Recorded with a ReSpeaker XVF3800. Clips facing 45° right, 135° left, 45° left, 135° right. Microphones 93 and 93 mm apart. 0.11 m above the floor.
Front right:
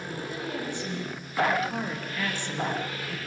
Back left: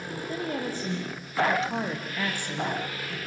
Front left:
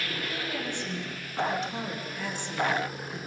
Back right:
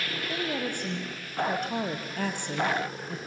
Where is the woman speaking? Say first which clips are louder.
Back left 4 dB, back right 6 dB; straight behind, 4.5 m; by 3.2 s 115° right, 2 m.